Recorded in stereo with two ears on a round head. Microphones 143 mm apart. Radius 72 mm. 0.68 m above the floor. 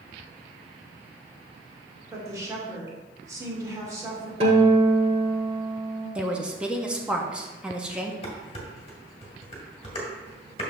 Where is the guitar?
40° right (ahead or behind), 1.8 m.